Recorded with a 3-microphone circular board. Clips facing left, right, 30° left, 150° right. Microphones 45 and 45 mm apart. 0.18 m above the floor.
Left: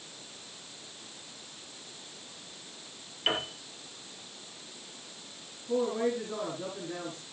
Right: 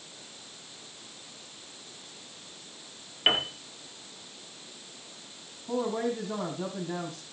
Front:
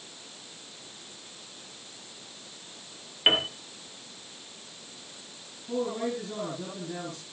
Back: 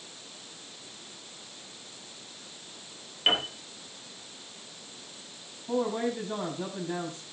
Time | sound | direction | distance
3.3 | a piano | 40° right | 3 m
5.7 | a man speaking | 110° right | 5.5 m